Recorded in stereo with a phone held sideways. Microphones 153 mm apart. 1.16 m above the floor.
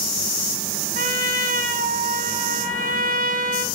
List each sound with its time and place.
0.9 s a trumpet: 70° right (ahead or behind), 1.5 m